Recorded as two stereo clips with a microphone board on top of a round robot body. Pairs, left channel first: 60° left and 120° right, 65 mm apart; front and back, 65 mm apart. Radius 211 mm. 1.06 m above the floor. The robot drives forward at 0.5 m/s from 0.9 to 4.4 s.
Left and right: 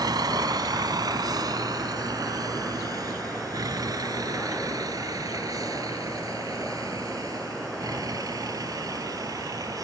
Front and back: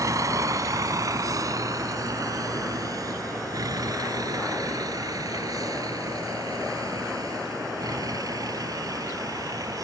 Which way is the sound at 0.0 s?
140° right.